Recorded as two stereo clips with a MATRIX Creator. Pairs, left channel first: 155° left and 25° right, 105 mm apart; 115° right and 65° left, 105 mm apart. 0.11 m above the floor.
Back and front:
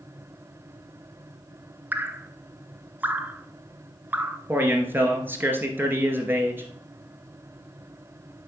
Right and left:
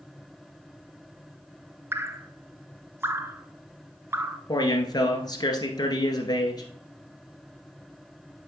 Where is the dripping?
30° left, 0.6 m.